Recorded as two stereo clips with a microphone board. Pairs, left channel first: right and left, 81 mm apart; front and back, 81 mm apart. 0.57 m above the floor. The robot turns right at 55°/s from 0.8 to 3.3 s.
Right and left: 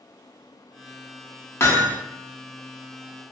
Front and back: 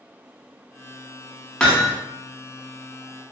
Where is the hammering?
70° right, 0.6 m; by 2.0 s 50° right, 0.6 m.